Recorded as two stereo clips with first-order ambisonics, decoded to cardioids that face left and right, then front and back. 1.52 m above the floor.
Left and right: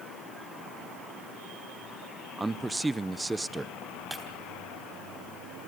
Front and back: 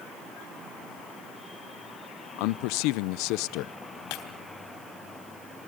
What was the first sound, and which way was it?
A man speaking, 5° right.